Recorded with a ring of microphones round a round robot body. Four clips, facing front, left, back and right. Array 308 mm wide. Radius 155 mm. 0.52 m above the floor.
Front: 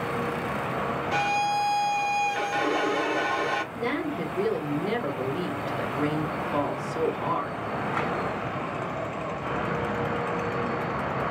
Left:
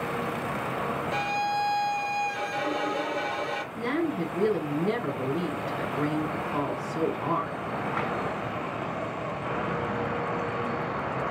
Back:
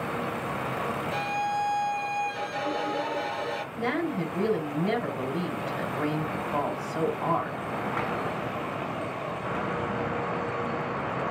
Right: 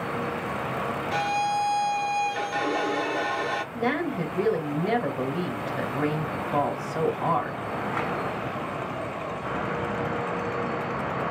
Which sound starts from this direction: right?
A woman speaking, at 3.7 s.